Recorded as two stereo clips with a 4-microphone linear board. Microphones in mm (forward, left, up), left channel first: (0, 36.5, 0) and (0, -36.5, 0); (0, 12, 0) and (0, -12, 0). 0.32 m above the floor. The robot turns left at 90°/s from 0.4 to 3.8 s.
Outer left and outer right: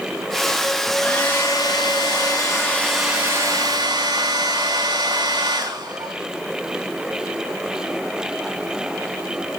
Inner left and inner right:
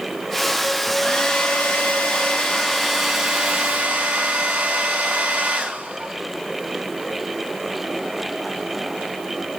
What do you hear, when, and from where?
0.9 s a hair dryer: 175° right, 4.5 m; by 6.1 s 75° right, 4.5 m